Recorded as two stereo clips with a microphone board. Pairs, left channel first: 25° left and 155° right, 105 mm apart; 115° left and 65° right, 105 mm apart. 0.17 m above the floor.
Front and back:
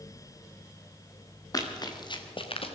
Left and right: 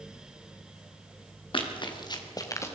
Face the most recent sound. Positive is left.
turn(degrees=45)